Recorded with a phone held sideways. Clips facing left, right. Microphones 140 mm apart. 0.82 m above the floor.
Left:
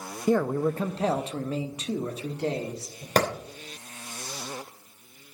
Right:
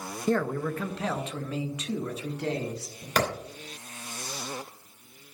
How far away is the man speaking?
About 0.5 m.